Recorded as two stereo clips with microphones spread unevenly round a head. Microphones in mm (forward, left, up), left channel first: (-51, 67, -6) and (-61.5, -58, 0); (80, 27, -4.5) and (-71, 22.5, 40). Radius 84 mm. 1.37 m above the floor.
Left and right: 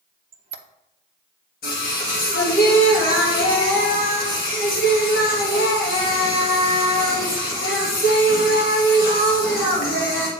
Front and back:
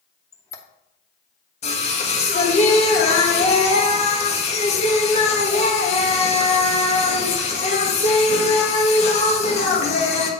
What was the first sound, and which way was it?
A squeak, 80° right.